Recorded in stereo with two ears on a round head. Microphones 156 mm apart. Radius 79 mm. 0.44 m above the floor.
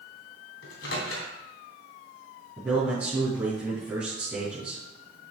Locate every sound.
0.6 s a microwave: 70° left (ahead or behind), 2.5 m
2.6 s a man speaking: 10° right (ahead or behind), 4 m